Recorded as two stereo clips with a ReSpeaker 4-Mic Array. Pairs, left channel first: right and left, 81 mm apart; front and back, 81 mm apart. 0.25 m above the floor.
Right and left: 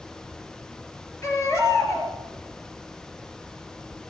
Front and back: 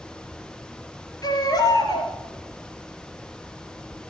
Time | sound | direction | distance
1.2 | a baby crying | 40° right | 3 m